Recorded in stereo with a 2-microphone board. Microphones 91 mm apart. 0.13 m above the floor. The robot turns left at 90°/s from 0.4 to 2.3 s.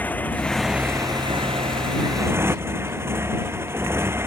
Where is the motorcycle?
20° left; by 4.3 s 155° right.